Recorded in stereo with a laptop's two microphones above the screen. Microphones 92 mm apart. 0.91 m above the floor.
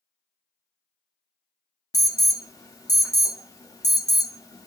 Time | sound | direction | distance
1.9 | an alarm | 40° left (ahead or behind) | 0.6 m